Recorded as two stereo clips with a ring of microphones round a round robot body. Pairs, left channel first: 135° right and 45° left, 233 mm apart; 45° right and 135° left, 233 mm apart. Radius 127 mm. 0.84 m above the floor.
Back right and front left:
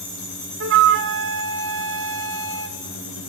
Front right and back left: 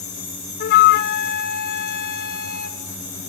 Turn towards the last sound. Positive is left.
turn(degrees=5)